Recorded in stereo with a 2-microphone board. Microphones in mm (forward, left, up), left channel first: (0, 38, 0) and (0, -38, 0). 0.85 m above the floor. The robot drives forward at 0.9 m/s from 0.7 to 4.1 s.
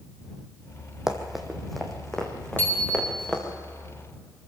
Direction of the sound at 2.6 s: 25° left (ahead or behind).